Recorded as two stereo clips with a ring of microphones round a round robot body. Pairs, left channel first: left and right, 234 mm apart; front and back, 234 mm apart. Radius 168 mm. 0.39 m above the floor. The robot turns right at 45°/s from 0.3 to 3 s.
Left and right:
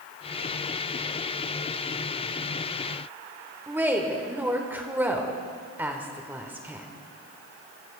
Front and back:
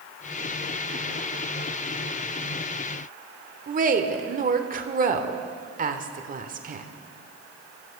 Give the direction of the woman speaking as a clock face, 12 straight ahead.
6 o'clock.